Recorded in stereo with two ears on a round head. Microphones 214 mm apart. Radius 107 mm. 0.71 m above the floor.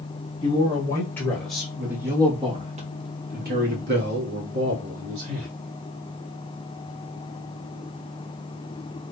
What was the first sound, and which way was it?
A man speaking, 20° left (ahead or behind).